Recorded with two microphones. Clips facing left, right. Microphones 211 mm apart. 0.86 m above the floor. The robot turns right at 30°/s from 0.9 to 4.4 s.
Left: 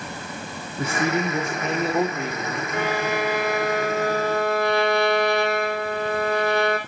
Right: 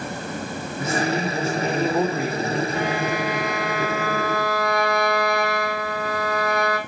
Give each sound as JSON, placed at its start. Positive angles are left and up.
{"t": 0.8, "sound": "a man speaking", "azimuth_deg": 145, "distance_m": 2.0}
{"t": 2.7, "sound": "a violin", "azimuth_deg": 100, "distance_m": 7.0}